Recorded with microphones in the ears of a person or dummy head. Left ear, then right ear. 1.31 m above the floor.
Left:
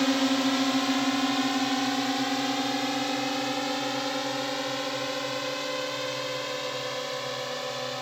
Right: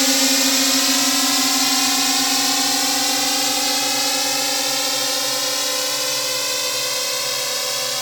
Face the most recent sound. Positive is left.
turn(degrees=-80)